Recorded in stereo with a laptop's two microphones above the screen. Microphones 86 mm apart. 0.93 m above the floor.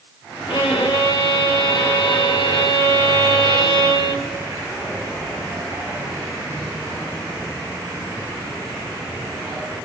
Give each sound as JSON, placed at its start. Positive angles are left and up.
{"t": 0.5, "sound": "a violin", "side_deg": 75, "distance_m": 1.2}